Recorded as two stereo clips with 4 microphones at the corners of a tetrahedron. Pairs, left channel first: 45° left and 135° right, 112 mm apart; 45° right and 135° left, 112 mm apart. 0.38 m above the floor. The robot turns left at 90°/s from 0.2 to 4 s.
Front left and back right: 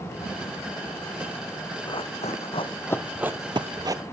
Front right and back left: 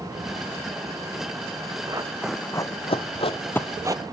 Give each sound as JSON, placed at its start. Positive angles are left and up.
{"t": 1.9, "sound": "running footsteps", "azimuth_deg": 90, "distance_m": 1.4}